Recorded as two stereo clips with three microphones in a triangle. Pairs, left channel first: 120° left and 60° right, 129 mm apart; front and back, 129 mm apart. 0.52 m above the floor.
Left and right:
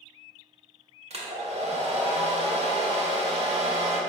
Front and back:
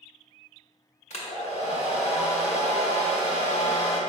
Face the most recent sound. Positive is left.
turn(degrees=-30)